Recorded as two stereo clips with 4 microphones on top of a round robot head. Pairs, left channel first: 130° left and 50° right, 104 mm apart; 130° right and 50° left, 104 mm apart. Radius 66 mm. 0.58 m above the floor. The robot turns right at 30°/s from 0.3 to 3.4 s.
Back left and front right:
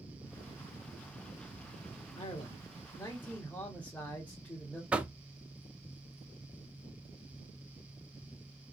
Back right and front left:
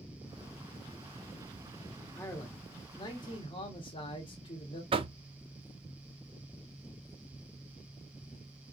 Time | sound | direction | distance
2.1 | a man speaking | 165° left | 1.6 m
4.9 | knocking | 30° left | 0.7 m